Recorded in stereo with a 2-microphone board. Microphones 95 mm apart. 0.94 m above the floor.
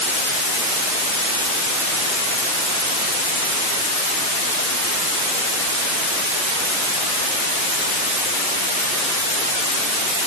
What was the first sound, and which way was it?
Only background noise.